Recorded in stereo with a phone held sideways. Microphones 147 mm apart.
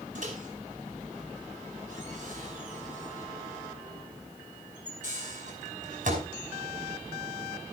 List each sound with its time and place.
0.1 s a microwave: 55° right (ahead or behind), 5.5 m